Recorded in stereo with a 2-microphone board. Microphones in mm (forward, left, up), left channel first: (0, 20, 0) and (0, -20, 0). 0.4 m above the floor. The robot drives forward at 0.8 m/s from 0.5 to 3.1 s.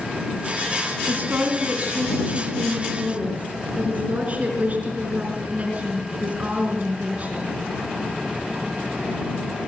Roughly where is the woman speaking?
Right.